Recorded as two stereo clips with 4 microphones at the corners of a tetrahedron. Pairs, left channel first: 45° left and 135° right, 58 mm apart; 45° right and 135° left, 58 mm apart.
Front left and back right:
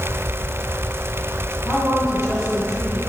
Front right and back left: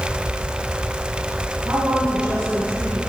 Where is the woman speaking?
155° left, 3 m.